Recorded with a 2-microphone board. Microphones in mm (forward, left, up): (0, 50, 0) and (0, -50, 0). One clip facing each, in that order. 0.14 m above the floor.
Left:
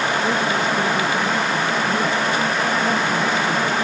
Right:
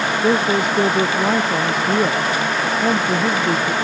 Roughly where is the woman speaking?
Right.